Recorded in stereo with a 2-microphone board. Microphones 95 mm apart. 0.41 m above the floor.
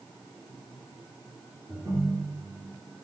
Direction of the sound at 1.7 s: 30° right (ahead or behind).